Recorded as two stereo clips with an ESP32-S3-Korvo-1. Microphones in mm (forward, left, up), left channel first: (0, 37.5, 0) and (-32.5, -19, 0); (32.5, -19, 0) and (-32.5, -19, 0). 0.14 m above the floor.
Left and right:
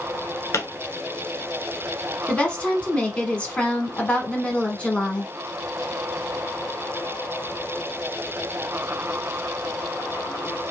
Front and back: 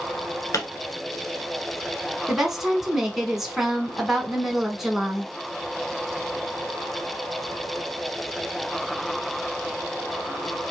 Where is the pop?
25° left, 1.1 m.